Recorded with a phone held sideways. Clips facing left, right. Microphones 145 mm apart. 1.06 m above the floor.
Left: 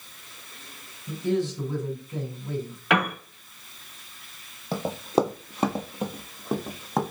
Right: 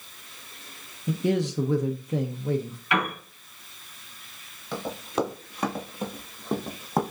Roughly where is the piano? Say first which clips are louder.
Left 3 dB; left.